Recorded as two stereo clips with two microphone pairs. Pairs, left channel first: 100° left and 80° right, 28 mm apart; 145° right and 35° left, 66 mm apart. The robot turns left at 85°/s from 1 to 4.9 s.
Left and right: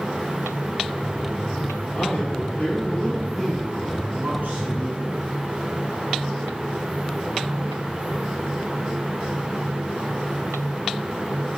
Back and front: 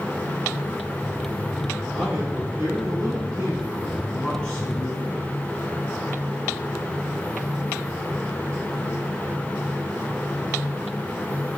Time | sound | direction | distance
1.9 | a man speaking | 120° left | 3.5 m